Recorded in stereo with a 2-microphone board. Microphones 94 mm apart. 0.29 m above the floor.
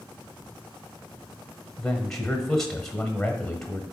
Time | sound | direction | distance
1.8 | a man speaking | 5° left (ahead or behind) | 1.1 m